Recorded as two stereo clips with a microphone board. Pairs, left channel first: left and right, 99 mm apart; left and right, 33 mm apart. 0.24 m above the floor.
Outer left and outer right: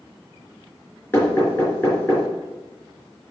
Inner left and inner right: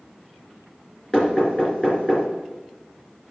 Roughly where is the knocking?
Left.